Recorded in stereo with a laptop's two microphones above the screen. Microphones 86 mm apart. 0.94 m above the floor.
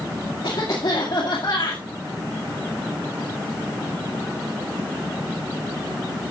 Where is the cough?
75° left (ahead or behind), 2 m.